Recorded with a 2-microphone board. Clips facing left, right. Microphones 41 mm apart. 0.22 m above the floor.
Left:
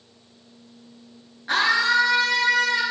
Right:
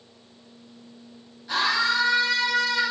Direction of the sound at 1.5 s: 50° left (ahead or behind).